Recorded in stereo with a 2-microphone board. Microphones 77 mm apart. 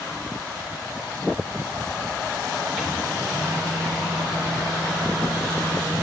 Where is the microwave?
5° right (ahead or behind), 4.5 m.